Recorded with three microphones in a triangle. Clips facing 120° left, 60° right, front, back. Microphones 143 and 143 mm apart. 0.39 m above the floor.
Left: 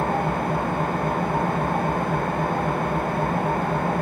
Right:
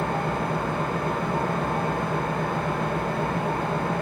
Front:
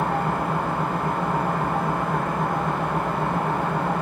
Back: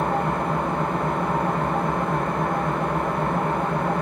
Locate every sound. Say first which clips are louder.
0.0 s an engine running: left 3 dB, back 1 dB; 85° left, 2 m